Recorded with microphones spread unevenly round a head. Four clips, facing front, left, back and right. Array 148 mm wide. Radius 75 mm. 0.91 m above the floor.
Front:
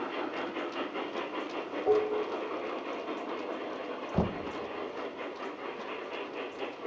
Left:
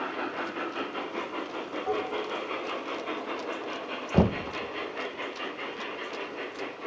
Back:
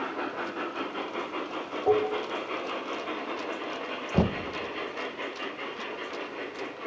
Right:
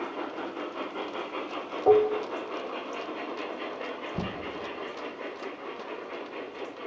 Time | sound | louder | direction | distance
1.9 | dishes clattering | right 11 dB, back 2 dB | 105° right | 1.4 m
4.1 | knocking | left 14 dB, back 5 dB | 100° left | 0.5 m